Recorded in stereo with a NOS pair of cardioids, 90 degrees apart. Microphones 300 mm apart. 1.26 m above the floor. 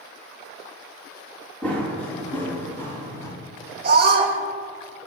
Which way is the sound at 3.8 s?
30° right.